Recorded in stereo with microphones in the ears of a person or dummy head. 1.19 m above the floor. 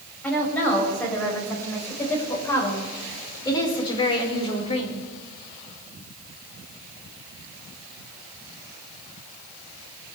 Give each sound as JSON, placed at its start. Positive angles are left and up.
{"t": 0.2, "sound": "a woman speaking", "side_deg": 5, "distance_m": 6.5}